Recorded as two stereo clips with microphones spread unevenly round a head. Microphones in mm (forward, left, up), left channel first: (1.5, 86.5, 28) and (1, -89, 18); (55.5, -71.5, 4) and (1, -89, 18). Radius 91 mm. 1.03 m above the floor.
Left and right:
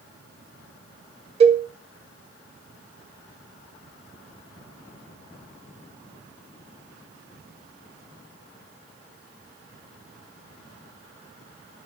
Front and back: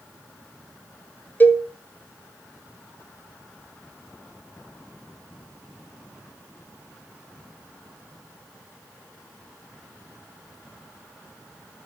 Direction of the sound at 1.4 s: 35° right.